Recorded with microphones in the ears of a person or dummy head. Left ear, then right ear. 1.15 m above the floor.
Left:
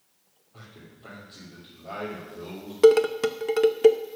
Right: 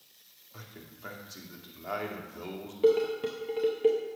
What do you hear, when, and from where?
0.5 s a man speaking: 65° right (ahead or behind), 2.5 m
2.8 s dishes clattering: 50° left (ahead or behind), 0.6 m